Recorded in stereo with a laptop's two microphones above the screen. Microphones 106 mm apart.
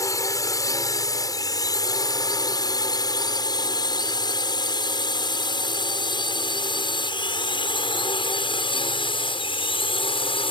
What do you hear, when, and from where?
0.0 s a drone: 35° left (ahead or behind); by 10.5 s 60° left (ahead or behind)